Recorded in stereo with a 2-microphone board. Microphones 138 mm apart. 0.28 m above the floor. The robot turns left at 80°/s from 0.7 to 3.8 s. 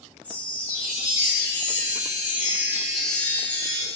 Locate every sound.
0.2 s a chime: 20° left, 2 m; by 3.9 s 130° left, 2 m